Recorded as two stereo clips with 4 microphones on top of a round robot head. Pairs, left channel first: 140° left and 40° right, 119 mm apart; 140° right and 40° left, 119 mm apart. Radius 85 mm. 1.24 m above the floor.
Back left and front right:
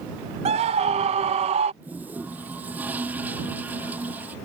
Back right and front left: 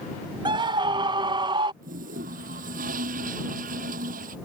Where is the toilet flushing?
35° left.